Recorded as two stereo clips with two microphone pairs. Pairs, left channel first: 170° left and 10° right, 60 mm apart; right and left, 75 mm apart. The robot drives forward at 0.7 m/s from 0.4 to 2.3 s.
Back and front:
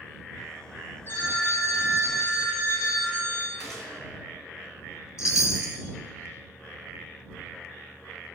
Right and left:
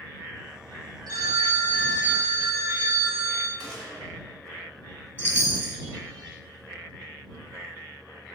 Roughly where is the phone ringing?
Behind left.